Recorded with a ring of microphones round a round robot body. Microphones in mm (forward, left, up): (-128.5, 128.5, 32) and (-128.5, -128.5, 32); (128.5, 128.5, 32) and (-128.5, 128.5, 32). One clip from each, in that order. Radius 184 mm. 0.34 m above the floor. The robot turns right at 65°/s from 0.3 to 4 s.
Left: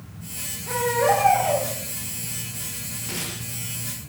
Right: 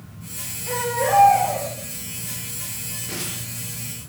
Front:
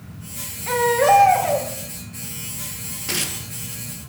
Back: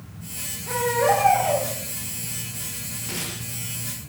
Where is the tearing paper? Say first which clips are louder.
Left 1 dB, front 7 dB; 10° left, 5.5 m; by 3.4 s 30° left, 5.5 m.